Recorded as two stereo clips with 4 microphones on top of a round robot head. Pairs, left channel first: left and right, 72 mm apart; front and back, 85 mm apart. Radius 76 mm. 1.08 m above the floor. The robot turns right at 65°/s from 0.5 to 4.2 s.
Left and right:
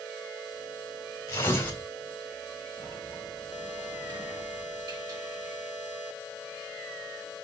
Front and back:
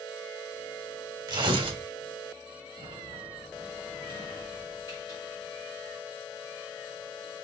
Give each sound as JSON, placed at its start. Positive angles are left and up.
{"t": 1.3, "sound": "tearing paper", "azimuth_deg": 140, "distance_m": 2.5}
{"t": 2.8, "sound": "a sliding door", "azimuth_deg": -150, "distance_m": 3.0}